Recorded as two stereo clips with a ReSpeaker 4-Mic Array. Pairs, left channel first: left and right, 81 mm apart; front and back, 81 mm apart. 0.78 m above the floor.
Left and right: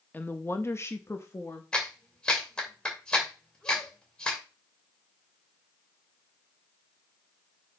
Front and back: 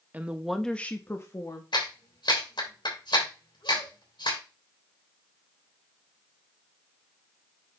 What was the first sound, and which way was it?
A woman speaking, 135° left.